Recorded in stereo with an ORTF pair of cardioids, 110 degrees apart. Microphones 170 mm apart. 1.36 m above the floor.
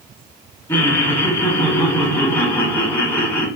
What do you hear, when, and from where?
0.7 s laughter: 15° left, 1.5 m